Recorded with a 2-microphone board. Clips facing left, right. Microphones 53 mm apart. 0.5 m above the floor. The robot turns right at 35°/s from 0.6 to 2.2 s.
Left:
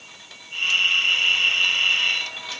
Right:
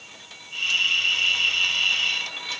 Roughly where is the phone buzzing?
I don't hear a phone buzzing.